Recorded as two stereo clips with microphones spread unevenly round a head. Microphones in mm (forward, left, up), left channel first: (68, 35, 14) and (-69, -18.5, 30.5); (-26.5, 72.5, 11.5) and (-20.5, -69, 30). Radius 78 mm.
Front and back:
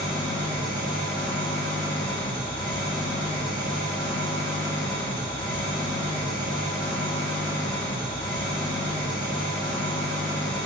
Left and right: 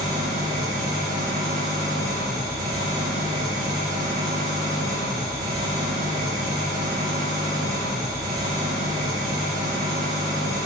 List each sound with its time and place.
0.0 s an engine running: 45° right, 2.5 m